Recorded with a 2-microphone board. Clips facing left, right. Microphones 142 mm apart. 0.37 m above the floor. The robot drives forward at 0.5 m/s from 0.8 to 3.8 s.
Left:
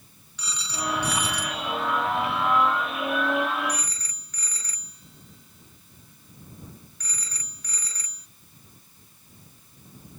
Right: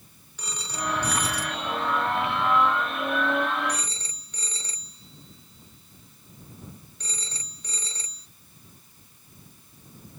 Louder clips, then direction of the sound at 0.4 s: Even; 50° right (ahead or behind).